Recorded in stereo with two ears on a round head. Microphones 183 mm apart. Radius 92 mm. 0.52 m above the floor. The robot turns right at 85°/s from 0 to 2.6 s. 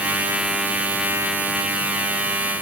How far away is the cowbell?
I don't hear a cowbell.